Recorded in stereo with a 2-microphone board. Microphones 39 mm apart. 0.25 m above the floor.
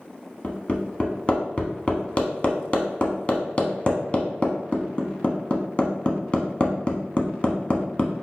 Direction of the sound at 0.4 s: 30° left (ahead or behind).